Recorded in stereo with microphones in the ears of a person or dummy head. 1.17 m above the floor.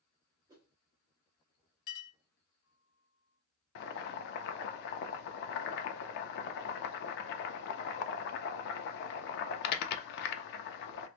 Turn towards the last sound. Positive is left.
turn(degrees=60)  # may be behind; listen again after turning